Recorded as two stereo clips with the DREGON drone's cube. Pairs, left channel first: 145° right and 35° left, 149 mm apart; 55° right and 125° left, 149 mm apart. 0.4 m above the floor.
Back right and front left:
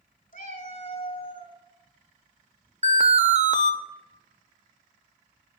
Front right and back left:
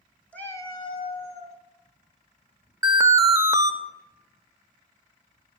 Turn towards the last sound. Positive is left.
turn(degrees=60)